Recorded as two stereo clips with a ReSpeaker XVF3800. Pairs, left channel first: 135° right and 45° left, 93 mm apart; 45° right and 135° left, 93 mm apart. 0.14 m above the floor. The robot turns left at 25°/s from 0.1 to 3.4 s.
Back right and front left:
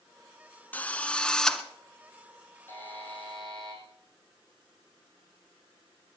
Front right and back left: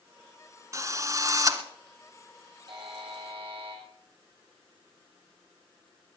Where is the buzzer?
160° left, 5.5 m; by 3.8 s 145° left, 5.5 m.